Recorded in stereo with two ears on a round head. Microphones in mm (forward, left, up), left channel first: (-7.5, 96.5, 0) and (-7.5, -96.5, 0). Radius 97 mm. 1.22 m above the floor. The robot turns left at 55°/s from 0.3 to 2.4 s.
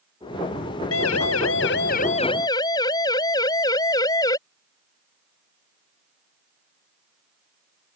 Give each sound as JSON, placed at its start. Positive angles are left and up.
{"t": 0.9, "sound": "a siren", "side_deg": 75}